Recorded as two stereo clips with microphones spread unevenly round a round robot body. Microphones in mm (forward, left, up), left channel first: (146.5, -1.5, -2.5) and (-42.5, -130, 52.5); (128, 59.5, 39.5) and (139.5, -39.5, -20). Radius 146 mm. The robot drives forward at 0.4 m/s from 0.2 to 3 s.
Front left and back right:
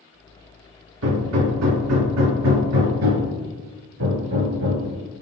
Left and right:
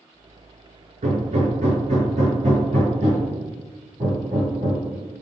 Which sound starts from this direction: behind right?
Hammering, at 1.0 s.